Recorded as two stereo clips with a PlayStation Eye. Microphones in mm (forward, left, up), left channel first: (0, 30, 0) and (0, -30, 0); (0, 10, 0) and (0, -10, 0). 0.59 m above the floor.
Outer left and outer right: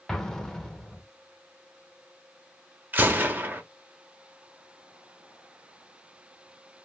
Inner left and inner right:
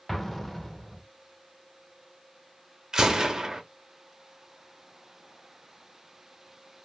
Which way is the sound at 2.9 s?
30° right (ahead or behind).